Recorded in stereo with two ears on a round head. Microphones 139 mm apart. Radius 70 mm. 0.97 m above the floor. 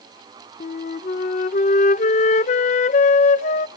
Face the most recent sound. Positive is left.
turn(degrees=50)  # may be behind; listen again after turning